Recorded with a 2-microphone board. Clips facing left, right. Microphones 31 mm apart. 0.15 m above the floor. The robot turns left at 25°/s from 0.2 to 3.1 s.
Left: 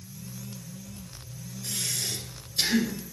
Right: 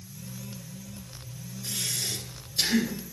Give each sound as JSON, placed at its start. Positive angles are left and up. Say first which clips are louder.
{"t": 1.6, "sound": "breathing", "louder": "even", "azimuth_deg": -170, "distance_m": 1.6}